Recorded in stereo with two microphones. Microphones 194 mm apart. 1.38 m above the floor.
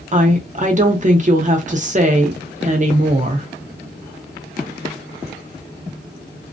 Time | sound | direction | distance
0.1 | a woman speaking | 40° right (ahead or behind) | 0.8 m